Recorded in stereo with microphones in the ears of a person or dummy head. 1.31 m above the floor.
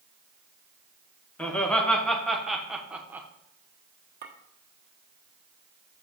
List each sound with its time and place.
1.4 s laughter: 5° left (ahead or behind), 1.7 m; by 3.3 s 15° right (ahead or behind), 0.9 m
4.2 s a clink: 55° right (ahead or behind), 1.2 m